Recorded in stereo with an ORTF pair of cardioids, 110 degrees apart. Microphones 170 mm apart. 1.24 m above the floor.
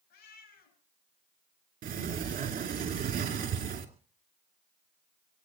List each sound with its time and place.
0.1 s a cat meowing: 70° left, 6 m
1.8 s a sliding door: 50° right, 2.5 m